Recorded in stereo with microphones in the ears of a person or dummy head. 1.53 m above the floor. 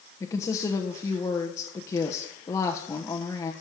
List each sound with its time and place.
0.2 s a woman speaking: 20° left (ahead or behind), 1.0 m